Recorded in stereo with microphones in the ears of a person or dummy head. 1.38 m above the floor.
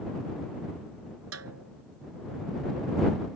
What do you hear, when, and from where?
1.3 s a snare drum: 80° right